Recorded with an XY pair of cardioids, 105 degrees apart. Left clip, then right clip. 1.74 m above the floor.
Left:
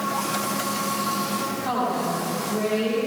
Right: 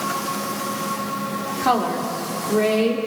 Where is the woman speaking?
65° right, 6 m.